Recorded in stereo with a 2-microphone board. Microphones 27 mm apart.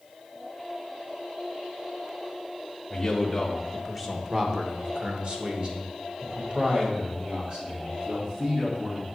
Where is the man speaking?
15° left (ahead or behind), 1.1 m; by 9.1 s 50° right (ahead or behind), 2.5 m.